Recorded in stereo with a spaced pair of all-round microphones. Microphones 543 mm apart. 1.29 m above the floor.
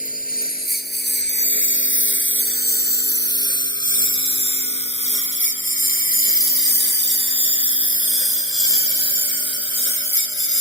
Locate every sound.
0.0 s a lawn mower: 15° left (ahead or behind); by 10.6 s 60° left (ahead or behind)